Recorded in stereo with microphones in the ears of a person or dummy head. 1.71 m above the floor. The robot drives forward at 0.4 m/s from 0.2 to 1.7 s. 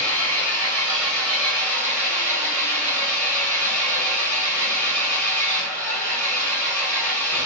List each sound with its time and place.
0.0 s an engine running: 10° left (ahead or behind), 1.0 m; by 7.5 s 5° left (ahead or behind), 1.6 m